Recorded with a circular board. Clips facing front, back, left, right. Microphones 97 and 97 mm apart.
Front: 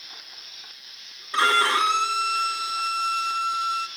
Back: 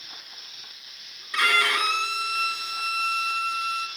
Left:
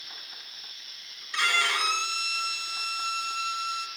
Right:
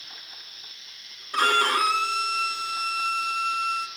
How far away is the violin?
About 2 m.